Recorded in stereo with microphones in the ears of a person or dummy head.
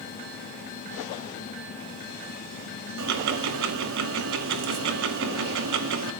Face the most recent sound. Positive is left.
turn(degrees=-70)  # may be behind; listen again after turning